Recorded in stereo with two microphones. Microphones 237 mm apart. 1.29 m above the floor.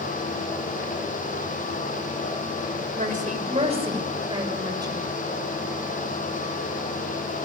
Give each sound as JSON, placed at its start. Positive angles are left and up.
{"t": 3.0, "sound": "a woman speaking", "side_deg": -35, "distance_m": 6.5}